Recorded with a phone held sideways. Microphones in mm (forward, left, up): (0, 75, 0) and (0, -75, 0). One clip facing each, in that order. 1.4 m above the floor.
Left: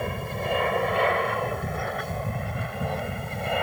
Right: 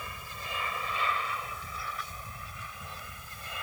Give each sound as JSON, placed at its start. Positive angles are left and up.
{"t": 0.0, "sound": "an aircraft", "side_deg": 55}